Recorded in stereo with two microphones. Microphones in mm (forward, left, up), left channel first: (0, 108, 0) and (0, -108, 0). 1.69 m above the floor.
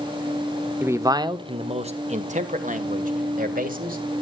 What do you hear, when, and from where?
0.8 s a man speaking: 10° right (ahead or behind), 0.7 m; by 4.0 s 40° right (ahead or behind), 2 m